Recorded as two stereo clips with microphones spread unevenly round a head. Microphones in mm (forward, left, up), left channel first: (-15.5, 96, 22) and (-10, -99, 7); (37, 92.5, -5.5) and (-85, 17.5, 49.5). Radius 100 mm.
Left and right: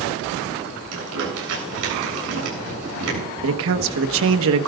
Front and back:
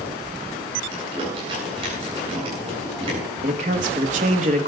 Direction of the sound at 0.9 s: 80° right.